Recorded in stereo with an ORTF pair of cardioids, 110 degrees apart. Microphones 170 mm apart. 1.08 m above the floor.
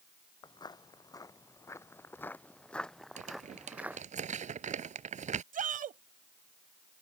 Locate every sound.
0.4 s footsteps: 25° left; by 4.0 s 10° right
3.2 s crumpling: 40° right
5.5 s a shout: 50° right